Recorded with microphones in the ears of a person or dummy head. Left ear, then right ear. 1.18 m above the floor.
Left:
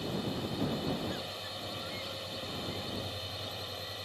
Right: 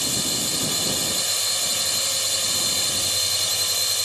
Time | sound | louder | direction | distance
0.0 | a drone | right 13 dB | 75° right (ahead or behind) | ?